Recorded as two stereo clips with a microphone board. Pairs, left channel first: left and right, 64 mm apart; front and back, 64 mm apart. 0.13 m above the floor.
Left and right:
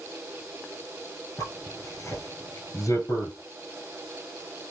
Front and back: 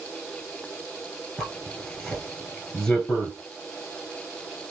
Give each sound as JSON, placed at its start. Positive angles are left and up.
{"t": 1.4, "sound": "a zipper", "azimuth_deg": 75, "distance_m": 0.9}